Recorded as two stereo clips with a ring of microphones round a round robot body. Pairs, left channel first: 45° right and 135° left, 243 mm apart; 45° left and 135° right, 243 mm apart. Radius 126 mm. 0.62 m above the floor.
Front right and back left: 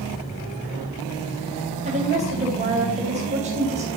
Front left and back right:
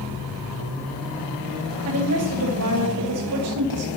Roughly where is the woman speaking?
Behind.